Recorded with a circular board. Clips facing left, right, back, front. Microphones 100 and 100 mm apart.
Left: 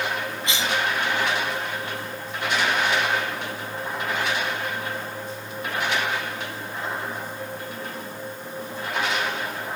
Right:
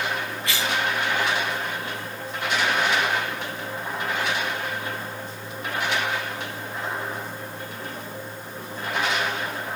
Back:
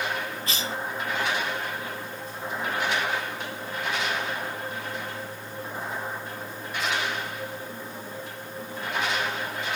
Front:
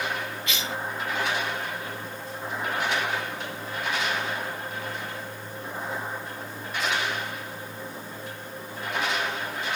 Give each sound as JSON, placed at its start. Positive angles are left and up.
{"t": 0.5, "sound": "a cough", "azimuth_deg": 150, "distance_m": 1.0}